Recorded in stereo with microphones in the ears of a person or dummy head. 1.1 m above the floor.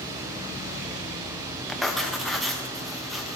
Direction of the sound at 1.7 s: Centre (ahead or behind).